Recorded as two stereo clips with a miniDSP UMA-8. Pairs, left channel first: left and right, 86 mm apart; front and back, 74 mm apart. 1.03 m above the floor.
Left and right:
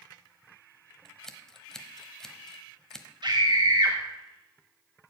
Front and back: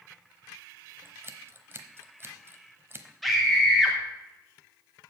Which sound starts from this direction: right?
A scream, at 3.2 s.